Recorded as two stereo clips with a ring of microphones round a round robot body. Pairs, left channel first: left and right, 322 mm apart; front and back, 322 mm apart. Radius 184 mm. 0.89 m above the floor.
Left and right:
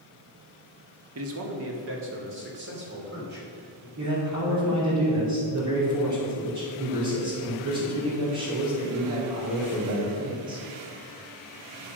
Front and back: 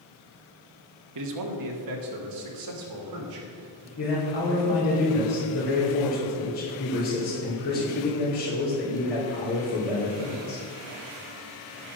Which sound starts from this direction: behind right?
A man speaking, at 1.1 s.